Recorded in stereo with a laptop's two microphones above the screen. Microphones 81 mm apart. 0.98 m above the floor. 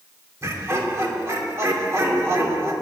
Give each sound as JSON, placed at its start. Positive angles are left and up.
{"t": 0.4, "sound": "laughter", "side_deg": -35, "distance_m": 2.5}